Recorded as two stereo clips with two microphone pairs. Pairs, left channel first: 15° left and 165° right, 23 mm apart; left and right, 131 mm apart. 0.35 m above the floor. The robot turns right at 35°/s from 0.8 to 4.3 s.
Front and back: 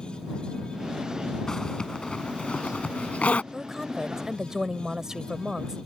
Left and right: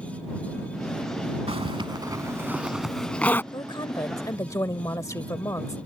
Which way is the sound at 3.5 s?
115° left.